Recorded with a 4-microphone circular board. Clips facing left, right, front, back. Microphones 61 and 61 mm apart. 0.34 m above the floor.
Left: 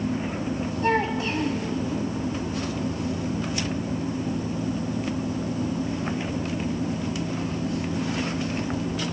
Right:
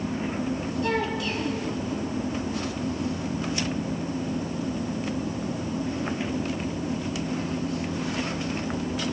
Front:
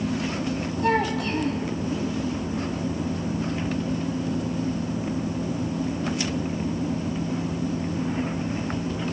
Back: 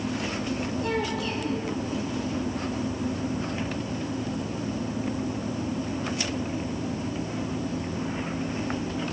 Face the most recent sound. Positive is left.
turn(degrees=35)